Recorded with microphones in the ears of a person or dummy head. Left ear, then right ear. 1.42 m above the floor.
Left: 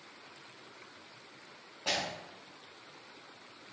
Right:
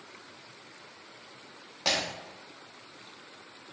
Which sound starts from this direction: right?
Breaking glass, at 1.9 s.